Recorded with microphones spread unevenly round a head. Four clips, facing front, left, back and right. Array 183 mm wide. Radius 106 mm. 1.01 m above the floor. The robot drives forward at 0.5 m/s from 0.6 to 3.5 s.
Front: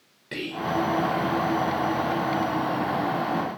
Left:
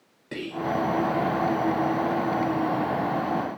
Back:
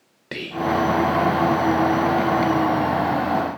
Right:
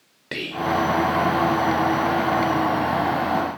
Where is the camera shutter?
I don't hear a camera shutter.